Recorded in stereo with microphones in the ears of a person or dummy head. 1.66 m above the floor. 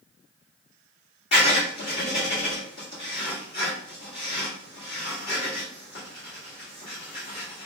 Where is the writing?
40° left (ahead or behind), 1.6 m.